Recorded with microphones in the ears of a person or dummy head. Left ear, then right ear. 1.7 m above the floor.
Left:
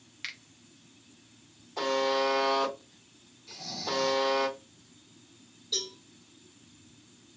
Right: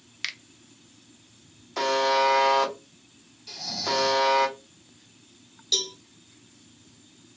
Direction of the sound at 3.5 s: 40° right (ahead or behind).